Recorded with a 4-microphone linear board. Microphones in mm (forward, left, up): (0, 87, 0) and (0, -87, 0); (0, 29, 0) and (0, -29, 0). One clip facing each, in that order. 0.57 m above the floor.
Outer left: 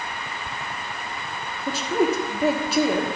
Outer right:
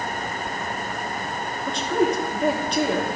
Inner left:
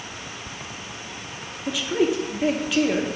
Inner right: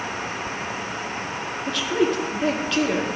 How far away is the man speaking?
About 0.8 m.